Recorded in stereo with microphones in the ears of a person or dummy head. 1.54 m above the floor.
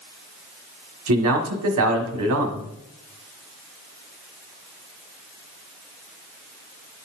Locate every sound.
1.1 s a man speaking: 75° right (ahead or behind), 1.3 m